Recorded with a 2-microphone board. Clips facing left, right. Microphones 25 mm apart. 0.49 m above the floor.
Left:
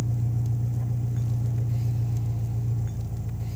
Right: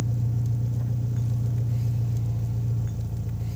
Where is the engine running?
35° right (ahead or behind), 8 m.